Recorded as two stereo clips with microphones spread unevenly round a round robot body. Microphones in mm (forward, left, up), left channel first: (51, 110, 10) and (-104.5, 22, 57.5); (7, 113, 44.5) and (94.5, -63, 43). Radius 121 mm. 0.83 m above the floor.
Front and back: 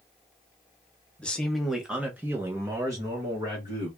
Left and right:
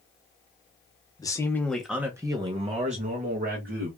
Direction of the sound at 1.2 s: 70° left.